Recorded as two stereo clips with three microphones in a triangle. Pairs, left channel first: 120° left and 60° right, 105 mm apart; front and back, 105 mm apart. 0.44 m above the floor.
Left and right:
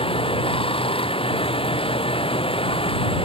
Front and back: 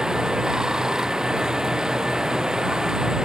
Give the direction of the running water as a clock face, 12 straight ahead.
9 o'clock.